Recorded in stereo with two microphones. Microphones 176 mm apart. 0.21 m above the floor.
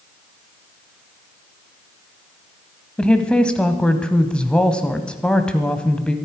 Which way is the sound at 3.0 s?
5° left (ahead or behind).